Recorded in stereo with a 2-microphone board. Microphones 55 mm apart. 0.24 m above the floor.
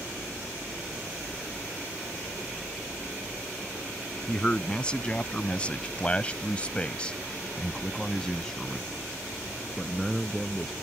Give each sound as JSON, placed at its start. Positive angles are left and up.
{"t": 4.3, "sound": "a man speaking", "side_deg": 20}